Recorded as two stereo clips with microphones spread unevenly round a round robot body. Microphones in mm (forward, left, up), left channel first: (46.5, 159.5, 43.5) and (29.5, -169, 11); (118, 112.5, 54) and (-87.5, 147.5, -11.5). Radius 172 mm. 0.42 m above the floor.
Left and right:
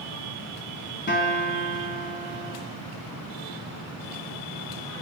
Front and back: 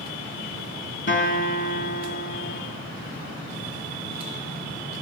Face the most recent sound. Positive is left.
turn(degrees=25)